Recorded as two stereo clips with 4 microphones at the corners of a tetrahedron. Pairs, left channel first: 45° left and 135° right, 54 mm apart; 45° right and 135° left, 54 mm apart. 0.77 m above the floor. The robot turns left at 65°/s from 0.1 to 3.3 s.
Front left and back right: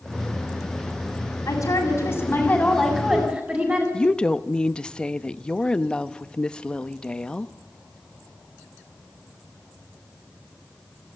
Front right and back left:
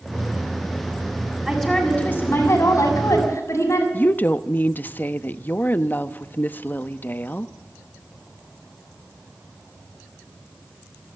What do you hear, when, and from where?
1.5 s a woman speaking: 45° left, 6.5 m; by 3.8 s 75° right, 6.5 m
3.9 s a woman speaking: 20° right, 0.8 m